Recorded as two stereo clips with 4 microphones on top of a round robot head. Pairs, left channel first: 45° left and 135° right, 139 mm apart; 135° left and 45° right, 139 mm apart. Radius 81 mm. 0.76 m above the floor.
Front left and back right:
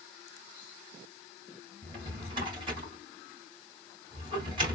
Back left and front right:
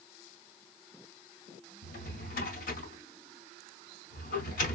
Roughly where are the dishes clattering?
No dishes clattering in this recording.